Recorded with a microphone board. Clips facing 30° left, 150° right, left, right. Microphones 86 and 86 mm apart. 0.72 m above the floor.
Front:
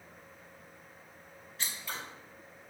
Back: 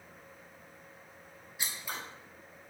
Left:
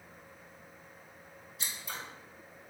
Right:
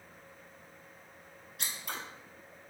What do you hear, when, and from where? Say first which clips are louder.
1.6 s scissors: even, right 2 dB; 70° right, 0.7 m